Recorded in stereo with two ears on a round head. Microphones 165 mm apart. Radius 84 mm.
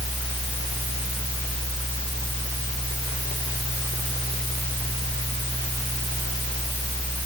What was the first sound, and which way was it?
Only background noise.